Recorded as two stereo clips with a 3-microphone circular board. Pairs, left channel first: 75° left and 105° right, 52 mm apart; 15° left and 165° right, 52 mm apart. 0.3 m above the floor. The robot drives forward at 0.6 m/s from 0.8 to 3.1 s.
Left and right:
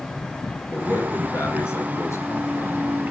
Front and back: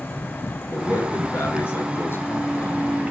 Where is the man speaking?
45° left, 4 m; by 3.0 s 60° left, 3 m.